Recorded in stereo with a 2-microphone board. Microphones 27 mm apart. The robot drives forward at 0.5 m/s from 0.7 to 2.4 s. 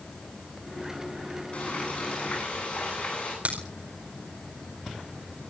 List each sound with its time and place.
1.5 s frying: 50° left (ahead or behind), 10 m; by 3.4 s 45° left (ahead or behind), 10 m
3.5 s a crack: 65° right (ahead or behind), 5 m